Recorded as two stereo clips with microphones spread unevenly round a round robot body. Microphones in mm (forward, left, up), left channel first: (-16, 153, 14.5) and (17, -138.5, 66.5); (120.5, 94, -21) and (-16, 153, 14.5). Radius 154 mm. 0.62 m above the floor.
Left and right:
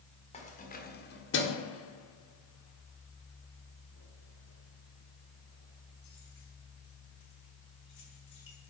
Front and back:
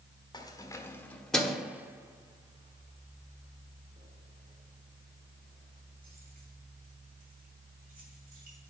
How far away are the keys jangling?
About 1.6 m.